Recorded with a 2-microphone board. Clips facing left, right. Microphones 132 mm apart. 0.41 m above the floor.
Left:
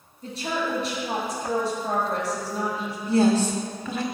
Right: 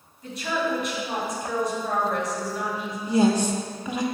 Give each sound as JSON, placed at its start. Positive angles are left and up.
{"t": 0.2, "sound": "a woman speaking", "side_deg": 30, "distance_m": 2.5}
{"t": 3.1, "sound": "a woman speaking", "side_deg": -15, "distance_m": 0.8}